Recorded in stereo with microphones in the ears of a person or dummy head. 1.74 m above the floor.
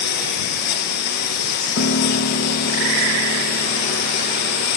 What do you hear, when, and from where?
0.0 s a lawn mower: 55° left (ahead or behind)
1.8 s a piano: 45° left (ahead or behind)